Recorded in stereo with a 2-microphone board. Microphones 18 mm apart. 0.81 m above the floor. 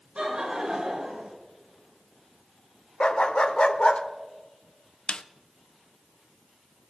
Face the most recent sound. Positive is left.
turn(degrees=60)  # may be behind; listen again after turning